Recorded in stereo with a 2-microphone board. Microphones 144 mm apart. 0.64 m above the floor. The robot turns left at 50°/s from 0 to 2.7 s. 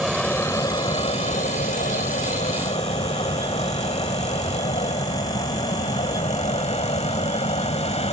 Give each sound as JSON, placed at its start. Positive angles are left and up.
{"t": 0.0, "sound": "an aircraft", "side_deg": 0}